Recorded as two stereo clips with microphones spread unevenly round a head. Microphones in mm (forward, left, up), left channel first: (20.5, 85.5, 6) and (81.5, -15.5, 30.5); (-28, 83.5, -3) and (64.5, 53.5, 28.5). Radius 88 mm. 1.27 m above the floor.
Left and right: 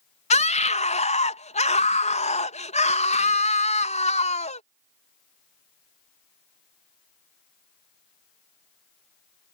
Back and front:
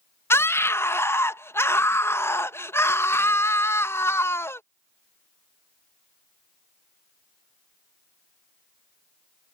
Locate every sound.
0.3 s a scream: 100° left